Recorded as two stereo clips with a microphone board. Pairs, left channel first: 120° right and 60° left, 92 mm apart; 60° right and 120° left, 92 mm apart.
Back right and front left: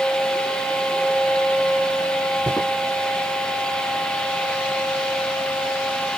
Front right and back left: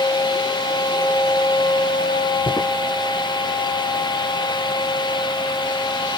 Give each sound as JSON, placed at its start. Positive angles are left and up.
{"t": 2.5, "sound": "footsteps", "azimuth_deg": -55, "distance_m": 3.5}